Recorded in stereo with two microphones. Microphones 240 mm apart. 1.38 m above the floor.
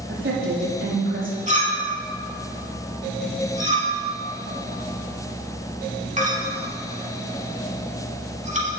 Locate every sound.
0.1 s a woman speaking: 55° right (ahead or behind), 3.5 m
1.5 s a clink: 30° right (ahead or behind), 2.5 m